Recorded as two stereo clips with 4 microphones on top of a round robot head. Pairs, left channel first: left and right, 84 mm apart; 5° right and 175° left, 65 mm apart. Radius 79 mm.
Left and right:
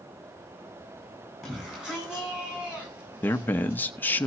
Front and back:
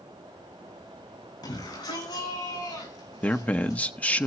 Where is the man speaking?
40° left, 0.9 m.